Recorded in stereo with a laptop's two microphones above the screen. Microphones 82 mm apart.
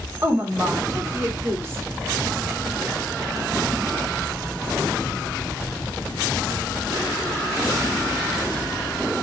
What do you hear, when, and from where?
0.2 s a woman speaking: 30° right (ahead or behind), 2.5 m